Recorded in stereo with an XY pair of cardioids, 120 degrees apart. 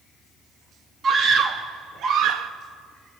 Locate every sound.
1.0 s a scream: 50° right, 2.0 m; by 2.5 s 70° right, 1.4 m